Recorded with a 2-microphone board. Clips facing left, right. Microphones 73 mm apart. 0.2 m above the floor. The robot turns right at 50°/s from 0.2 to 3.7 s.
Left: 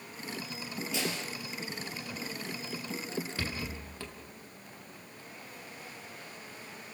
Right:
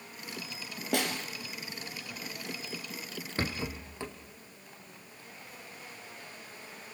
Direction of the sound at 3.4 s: 35° right (ahead or behind).